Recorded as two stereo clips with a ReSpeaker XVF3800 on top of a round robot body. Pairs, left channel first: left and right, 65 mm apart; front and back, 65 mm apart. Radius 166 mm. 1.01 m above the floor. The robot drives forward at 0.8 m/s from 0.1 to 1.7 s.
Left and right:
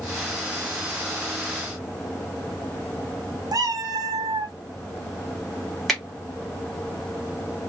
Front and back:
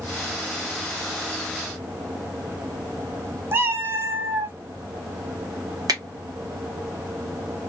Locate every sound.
3.5 s a cat meowing: 125° right, 0.6 m
5.9 s a finger snap: 175° left, 1.5 m